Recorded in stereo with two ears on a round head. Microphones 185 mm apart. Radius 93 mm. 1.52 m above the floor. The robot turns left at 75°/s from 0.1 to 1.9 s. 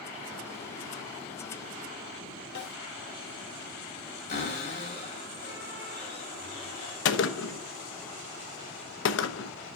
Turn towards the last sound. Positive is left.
turn(degrees=60)  # may be behind; listen again after turning